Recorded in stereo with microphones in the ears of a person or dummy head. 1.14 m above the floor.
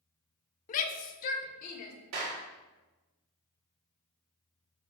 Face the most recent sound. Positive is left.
turn(degrees=-75)  # may be behind; listen again after turning